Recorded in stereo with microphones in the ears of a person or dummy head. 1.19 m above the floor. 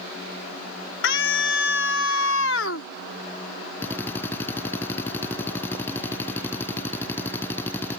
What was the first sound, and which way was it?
A scream, 65° left (ahead or behind).